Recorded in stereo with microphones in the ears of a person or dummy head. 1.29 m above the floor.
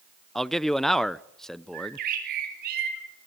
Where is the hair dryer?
No hair dryer in this recording.